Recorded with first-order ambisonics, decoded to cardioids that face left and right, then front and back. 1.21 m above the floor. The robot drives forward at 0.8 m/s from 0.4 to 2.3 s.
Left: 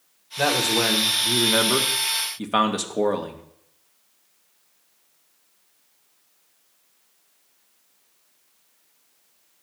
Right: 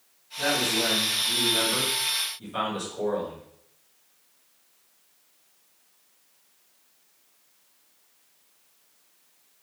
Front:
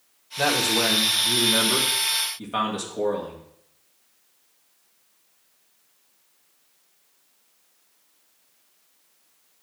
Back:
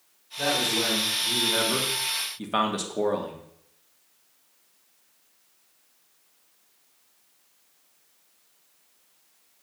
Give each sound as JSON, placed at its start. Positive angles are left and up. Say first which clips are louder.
{"t": 0.4, "sound": "a man speaking", "louder": "left 4 dB, front 3 dB", "azimuth_deg": 50, "distance_m": 1.9}